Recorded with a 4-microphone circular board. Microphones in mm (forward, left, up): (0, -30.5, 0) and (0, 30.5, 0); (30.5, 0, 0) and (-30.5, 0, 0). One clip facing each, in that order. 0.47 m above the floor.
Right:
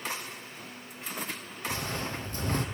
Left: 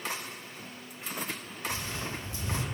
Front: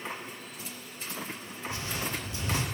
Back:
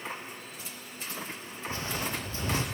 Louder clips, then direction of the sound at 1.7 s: Right 3 dB, back 1 dB; 130° right.